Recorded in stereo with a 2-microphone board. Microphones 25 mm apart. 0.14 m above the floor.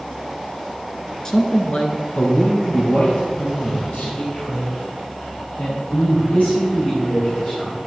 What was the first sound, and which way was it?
A man speaking, 25° left (ahead or behind).